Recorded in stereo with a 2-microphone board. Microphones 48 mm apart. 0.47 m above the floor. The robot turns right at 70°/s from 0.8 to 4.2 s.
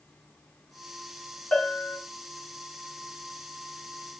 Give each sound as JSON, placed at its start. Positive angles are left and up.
{"t": 1.5, "sound": "a bell", "azimuth_deg": 30, "distance_m": 2.5}